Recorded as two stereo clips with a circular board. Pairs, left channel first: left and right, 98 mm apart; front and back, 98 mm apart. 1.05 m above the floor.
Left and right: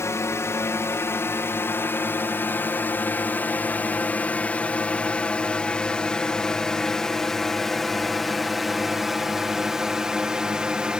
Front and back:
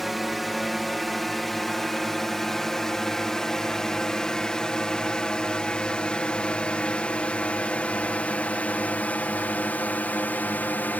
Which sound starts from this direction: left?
A drone, at 0.0 s.